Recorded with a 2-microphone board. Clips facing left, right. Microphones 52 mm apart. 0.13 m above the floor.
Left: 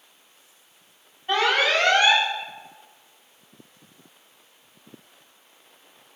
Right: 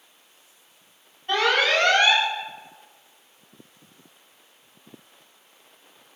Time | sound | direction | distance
1.3 | an alarm | 10° left (ahead or behind) | 8.5 m